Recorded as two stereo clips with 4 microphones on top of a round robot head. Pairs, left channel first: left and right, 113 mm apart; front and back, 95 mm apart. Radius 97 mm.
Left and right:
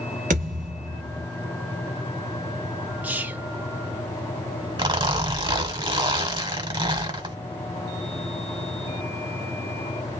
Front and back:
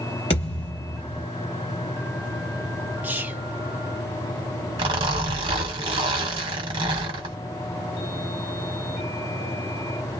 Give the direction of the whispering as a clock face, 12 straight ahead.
5 o'clock.